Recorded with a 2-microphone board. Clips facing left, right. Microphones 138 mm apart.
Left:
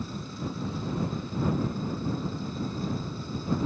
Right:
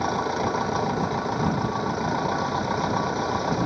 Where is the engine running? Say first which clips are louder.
Right 11 dB; 80° right.